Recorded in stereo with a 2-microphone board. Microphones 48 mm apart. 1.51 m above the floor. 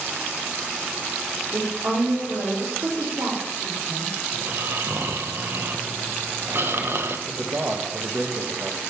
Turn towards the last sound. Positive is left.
turn(degrees=-45)  # may be behind; listen again after turning